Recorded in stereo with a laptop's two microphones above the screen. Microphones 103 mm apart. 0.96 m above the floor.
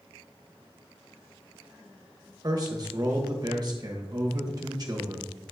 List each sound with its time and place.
2.4 s a man speaking: 40° right (ahead or behind), 1.1 m